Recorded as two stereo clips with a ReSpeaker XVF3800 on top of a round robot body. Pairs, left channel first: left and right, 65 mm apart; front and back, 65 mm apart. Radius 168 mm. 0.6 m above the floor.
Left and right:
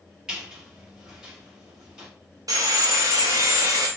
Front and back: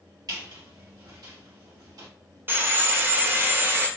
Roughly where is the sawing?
Behind right.